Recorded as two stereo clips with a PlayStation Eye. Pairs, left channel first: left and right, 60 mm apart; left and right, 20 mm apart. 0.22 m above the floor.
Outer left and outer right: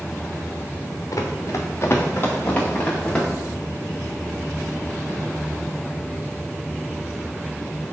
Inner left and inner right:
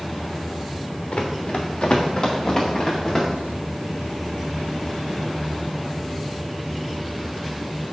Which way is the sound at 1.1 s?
70° left (ahead or behind).